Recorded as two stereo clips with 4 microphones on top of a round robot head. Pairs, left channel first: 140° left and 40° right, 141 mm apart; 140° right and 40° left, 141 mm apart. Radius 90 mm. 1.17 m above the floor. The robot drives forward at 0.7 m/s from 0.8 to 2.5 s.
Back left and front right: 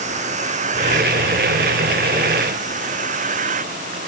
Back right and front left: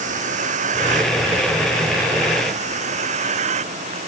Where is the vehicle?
Straight ahead; by 4.1 s 5° right.